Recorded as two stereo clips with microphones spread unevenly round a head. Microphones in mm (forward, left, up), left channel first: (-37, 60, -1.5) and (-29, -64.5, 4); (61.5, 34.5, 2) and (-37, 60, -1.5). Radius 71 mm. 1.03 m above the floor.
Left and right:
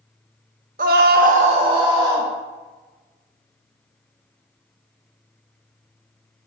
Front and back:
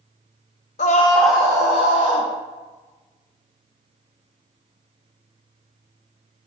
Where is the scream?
50° right, 0.6 m; by 2.3 s 150° right, 1.3 m.